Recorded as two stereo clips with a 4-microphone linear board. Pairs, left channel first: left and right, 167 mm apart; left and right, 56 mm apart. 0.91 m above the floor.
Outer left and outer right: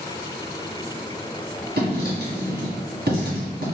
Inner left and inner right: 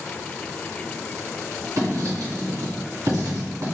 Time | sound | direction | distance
1.8 | writing | 75° right (ahead or behind) | 2.0 m